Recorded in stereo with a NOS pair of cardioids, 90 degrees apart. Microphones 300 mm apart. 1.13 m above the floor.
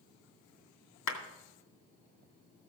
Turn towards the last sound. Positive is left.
turn(degrees=65)